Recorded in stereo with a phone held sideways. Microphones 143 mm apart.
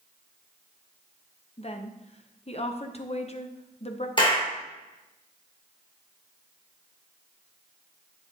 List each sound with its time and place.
1.6 s a woman speaking: 45° left (ahead or behind), 0.7 m
4.2 s a clap: 30° left (ahead or behind), 1.9 m